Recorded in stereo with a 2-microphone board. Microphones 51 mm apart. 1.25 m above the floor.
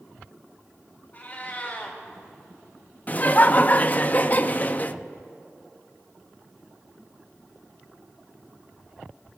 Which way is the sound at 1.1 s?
35° left (ahead or behind).